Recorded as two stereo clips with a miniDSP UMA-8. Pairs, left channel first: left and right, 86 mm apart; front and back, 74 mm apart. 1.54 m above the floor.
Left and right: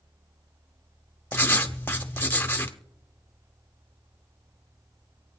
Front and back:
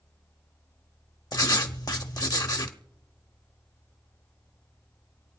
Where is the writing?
25° left, 0.8 m.